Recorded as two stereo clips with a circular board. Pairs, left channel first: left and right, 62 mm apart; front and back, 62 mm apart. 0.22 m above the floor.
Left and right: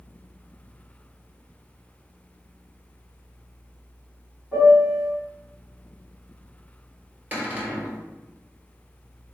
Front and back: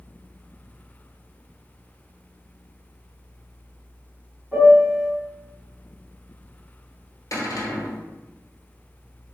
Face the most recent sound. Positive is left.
turn(degrees=-30)